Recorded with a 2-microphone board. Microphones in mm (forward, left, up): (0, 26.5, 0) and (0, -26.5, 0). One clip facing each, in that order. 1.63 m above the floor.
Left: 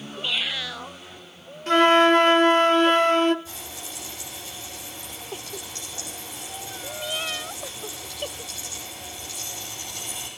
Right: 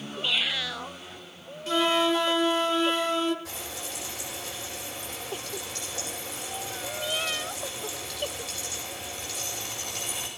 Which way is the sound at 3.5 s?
90° right.